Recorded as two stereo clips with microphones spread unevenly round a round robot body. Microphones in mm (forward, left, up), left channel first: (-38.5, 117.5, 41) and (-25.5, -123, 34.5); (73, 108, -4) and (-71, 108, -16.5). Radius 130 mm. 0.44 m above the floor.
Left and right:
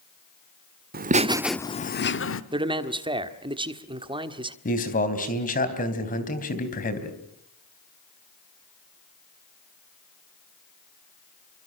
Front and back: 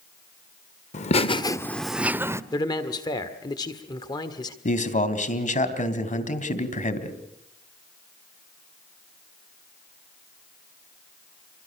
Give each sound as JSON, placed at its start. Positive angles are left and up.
{"t": 0.9, "sound": "laughter", "azimuth_deg": -45, "distance_m": 1.1}
{"t": 2.5, "sound": "a man speaking", "azimuth_deg": -45, "distance_m": 1.5}
{"t": 4.7, "sound": "a man speaking", "azimuth_deg": 35, "distance_m": 3.5}